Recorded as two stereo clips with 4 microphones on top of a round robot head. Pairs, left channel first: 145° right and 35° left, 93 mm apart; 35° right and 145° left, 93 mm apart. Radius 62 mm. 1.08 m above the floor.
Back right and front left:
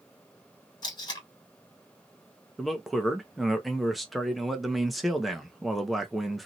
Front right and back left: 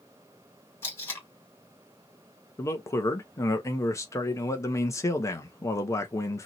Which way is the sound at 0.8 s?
100° right.